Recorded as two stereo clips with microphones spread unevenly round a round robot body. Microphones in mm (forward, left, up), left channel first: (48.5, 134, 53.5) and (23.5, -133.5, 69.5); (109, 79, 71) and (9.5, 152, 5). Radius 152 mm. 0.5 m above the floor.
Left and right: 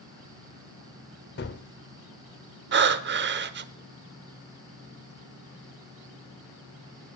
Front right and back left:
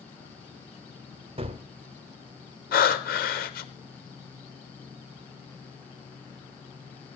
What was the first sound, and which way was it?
A gunshot, 135° left.